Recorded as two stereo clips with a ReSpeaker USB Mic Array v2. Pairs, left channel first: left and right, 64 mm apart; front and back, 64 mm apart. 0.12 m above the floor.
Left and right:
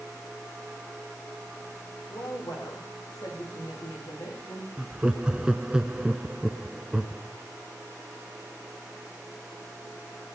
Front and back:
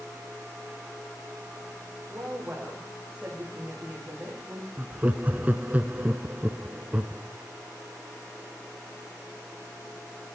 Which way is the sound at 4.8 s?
150° right.